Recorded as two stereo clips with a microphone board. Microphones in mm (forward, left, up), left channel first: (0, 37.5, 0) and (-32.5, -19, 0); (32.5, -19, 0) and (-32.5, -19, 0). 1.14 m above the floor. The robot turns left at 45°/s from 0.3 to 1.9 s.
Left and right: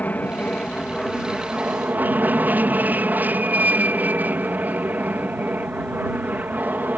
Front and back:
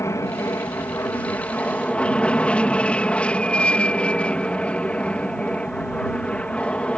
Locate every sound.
0.0 s an aircraft: 5° left; by 7.0 s 65° right